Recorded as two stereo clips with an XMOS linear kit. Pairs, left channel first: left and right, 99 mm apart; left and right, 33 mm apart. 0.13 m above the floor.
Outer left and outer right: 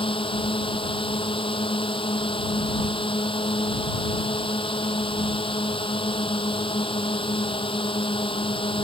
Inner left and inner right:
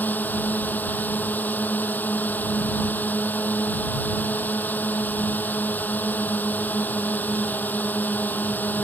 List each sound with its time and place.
0.0 s a drone: 60° left (ahead or behind)